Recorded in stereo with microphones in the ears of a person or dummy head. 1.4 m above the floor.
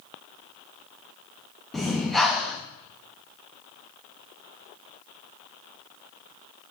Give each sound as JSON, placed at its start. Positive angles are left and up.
{"t": 1.7, "sound": "breathing", "side_deg": 0, "distance_m": 0.7}